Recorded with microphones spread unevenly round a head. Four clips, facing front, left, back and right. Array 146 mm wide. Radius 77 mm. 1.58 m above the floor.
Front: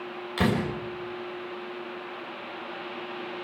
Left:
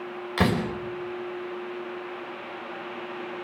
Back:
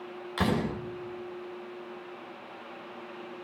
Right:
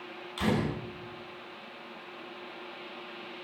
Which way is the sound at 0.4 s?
70° left.